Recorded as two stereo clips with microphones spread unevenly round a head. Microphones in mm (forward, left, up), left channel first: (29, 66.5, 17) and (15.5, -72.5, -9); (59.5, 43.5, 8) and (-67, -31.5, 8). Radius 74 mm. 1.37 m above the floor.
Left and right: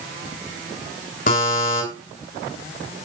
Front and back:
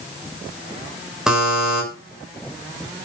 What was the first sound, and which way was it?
A buzzer, 125° left.